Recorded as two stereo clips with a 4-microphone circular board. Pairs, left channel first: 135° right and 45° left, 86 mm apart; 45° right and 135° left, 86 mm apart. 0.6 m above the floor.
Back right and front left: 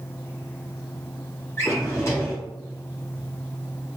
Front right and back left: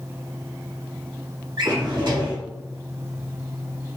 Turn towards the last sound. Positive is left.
turn(degrees=165)